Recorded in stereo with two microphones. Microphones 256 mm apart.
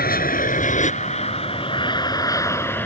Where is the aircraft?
35° left (ahead or behind); by 2.9 s 5° left (ahead or behind).